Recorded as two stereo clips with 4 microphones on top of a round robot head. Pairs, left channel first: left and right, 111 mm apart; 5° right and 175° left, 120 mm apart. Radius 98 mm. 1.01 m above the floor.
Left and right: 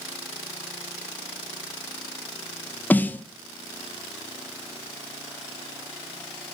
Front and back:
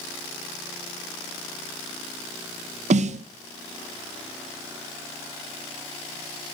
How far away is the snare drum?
About 0.5 m.